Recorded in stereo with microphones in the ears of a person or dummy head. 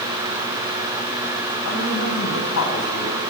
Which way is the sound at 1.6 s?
75° left (ahead or behind).